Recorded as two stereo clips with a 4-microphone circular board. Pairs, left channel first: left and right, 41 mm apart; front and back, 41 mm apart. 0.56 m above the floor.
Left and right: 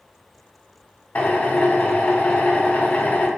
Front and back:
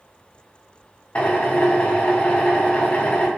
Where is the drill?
50° left, 2.0 m.